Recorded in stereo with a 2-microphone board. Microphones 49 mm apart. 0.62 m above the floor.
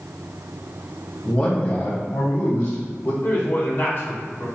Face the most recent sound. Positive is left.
turn(degrees=45)  # may be behind; listen again after turning